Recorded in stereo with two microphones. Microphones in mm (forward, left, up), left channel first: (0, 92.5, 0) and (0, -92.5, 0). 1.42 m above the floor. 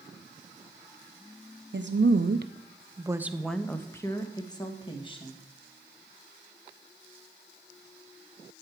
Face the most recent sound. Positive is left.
turn(degrees=30)  # may be behind; listen again after turning